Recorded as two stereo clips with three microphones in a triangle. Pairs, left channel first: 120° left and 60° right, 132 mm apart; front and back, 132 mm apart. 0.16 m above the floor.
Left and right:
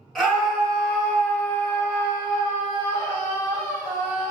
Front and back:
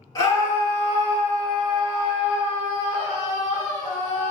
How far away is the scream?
About 1.9 m.